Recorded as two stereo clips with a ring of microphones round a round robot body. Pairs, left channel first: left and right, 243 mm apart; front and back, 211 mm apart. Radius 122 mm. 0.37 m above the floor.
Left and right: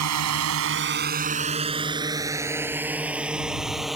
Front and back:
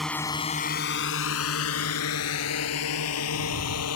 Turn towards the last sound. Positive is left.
turn(degrees=0)